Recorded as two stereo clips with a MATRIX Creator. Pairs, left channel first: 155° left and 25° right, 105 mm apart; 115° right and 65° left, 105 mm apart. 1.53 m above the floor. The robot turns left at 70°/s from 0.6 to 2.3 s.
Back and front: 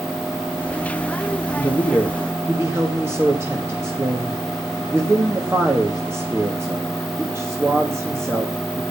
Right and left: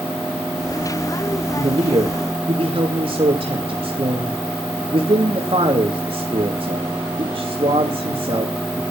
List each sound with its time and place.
1.6 s a man speaking: 95° left, 2.5 m; by 8.8 s 40° left, 2.5 m